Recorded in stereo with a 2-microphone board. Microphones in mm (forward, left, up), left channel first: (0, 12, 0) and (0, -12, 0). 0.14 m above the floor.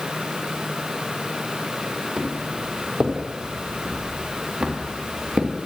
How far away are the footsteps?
About 4.5 m.